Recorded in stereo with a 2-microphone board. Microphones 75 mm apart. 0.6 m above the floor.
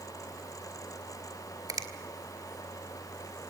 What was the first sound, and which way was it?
A finger snap, 60° right (ahead or behind).